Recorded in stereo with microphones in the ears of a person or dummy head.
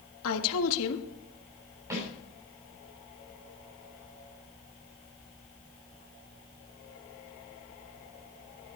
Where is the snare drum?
25° right (ahead or behind), 7.5 m.